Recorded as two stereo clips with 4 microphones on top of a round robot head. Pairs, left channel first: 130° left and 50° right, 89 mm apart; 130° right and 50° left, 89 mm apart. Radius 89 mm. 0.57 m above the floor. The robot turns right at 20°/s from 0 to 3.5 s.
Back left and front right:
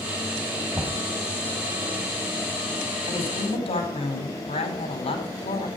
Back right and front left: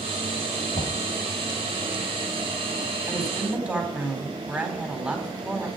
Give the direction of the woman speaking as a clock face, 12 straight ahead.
8 o'clock.